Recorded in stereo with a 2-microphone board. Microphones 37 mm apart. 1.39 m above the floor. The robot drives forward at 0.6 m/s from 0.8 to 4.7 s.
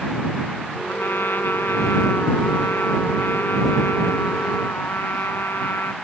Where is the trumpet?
80° left; by 5.9 s 90° left.